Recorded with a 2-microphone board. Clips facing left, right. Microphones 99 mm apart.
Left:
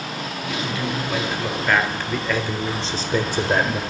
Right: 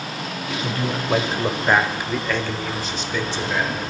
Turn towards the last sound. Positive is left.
turn(degrees=55)  # may be behind; listen again after turning